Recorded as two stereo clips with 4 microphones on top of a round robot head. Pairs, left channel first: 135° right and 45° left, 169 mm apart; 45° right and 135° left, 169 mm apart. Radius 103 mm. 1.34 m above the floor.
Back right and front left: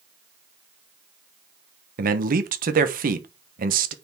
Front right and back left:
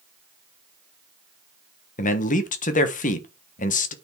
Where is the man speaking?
5° left, 1.3 m.